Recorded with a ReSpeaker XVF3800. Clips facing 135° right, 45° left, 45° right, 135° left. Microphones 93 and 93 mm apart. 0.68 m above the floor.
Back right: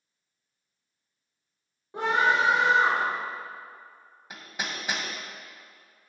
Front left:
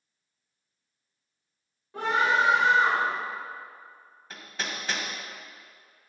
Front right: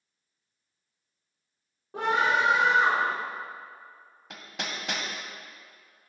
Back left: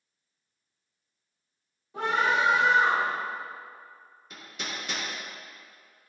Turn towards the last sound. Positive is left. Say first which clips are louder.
# even, front right 2 dB
turn(degrees=-60)